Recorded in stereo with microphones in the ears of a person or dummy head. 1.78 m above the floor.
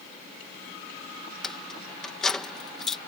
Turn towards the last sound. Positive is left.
turn(degrees=5)  # may be behind; listen again after turning